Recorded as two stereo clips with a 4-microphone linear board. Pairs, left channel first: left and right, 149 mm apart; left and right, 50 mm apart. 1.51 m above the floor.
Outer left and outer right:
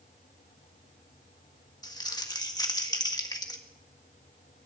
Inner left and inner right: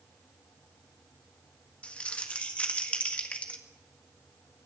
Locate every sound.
1.8 s crumpling: 25° left (ahead or behind), 1.6 m